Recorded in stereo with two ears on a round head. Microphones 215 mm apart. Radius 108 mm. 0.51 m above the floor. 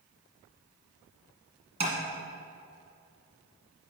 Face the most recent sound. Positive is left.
turn(degrees=-25)  # may be behind; listen again after turning